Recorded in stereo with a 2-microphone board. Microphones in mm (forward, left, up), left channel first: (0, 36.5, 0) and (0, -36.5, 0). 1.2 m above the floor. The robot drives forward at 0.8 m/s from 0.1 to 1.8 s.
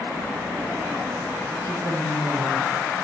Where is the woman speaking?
60° right (ahead or behind), 4 m.